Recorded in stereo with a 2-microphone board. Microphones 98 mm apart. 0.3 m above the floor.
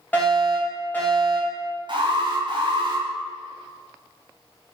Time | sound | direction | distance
0.1 | a fire alarm | 20° left (ahead or behind) | 2.5 m
1.9 | an alarm | 50° right (ahead or behind) | 2.0 m